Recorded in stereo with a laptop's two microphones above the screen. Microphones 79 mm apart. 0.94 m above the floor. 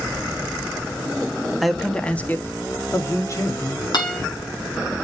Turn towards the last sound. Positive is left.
turn(degrees=65)  # may be behind; listen again after turning